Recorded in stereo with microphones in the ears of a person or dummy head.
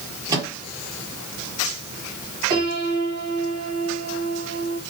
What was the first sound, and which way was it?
A microwave, 20° right (ahead or behind).